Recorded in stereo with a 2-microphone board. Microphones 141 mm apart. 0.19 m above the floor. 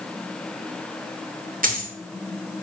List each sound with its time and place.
1.6 s a dropped coin: 80° right, 4 m